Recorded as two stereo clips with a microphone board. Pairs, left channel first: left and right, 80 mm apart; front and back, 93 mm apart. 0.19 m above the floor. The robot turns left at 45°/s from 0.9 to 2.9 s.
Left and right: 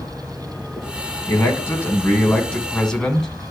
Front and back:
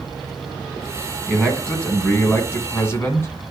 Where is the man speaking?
90° left, 1.7 m; by 3.5 s 15° left, 1.7 m.